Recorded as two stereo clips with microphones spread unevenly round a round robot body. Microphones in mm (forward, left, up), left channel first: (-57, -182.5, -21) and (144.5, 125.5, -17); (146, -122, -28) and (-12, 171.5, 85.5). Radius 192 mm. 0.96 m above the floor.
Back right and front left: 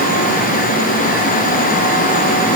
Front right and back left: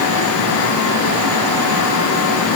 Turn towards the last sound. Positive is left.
No sound to turn to.